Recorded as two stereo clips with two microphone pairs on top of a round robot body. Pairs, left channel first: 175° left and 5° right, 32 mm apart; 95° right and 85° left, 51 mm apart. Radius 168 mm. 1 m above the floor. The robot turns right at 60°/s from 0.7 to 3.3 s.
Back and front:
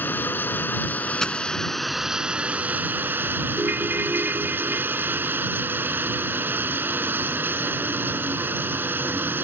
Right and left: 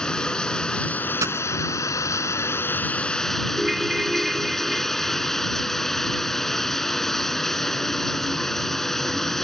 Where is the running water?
170° right; by 9.4 s 10° right.